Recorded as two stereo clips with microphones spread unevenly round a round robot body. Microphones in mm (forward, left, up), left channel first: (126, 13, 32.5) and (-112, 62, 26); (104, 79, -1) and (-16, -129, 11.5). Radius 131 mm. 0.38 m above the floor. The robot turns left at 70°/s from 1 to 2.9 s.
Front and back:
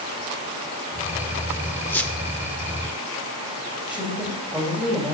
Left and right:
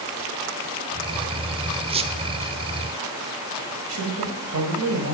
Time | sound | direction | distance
1.9 | a squeak | 85° right | 0.8 m
3.9 | a woman speaking | 105° right | 2.5 m